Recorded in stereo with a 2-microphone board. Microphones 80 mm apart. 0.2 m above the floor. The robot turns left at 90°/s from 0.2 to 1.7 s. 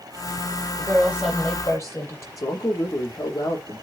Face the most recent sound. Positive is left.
turn(degrees=45)  # may be behind; listen again after turning